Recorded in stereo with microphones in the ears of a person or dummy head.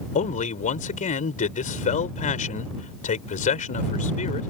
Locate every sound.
0.1 s a man speaking: 35° left (ahead or behind)